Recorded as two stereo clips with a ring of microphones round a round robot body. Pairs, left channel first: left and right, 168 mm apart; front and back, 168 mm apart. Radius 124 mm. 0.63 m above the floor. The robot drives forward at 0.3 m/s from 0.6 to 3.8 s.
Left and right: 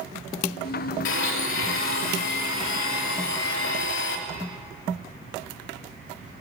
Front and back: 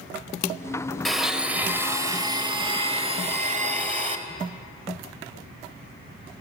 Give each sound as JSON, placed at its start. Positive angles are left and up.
{"t": 1.1, "sound": "a blender", "azimuth_deg": 90, "distance_m": 0.9}